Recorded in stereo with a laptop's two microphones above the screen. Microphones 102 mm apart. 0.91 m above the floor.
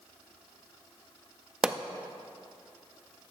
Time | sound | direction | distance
1.6 | a pop | 10° right (ahead or behind) | 0.5 m